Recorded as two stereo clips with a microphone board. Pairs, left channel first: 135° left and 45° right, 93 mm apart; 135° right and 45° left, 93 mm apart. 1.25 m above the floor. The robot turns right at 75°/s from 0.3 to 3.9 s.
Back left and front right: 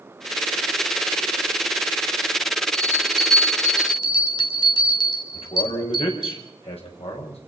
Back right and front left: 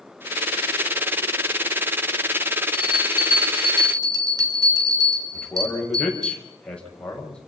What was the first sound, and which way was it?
A bell, 5° left.